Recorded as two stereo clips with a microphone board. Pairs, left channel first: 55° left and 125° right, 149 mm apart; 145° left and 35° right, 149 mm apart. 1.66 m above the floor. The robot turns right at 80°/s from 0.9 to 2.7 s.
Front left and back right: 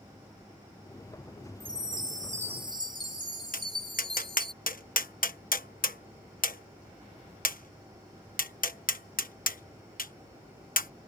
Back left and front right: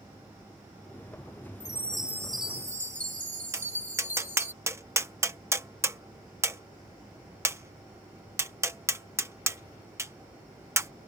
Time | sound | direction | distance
1.6 | a chime | 155° right | ?
3.5 | tapping | 40° left | ?